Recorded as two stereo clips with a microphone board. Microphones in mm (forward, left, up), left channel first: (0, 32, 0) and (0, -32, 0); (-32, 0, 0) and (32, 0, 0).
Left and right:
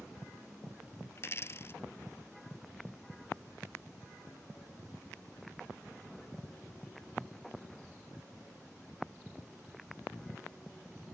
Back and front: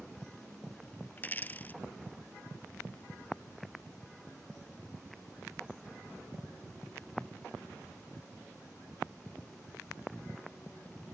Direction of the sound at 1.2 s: 125° left.